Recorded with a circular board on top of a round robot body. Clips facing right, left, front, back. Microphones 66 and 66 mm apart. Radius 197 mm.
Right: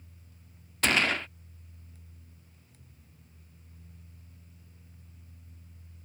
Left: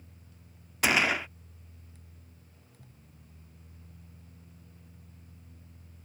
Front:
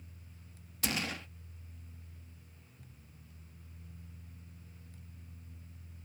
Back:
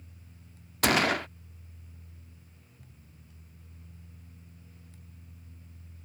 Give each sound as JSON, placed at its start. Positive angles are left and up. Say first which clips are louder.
{"t": 0.8, "sound": "a gunshot", "louder": "left 1 dB, back 13 dB", "azimuth_deg": 170}